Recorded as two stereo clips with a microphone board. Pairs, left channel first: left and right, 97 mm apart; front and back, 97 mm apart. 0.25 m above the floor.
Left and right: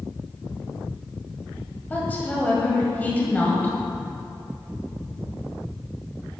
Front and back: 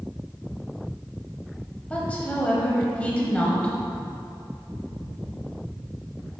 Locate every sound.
1.9 s a woman speaking: 50° left, 1.3 m